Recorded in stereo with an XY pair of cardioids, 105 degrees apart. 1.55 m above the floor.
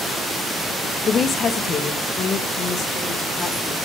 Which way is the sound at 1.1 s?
50° left.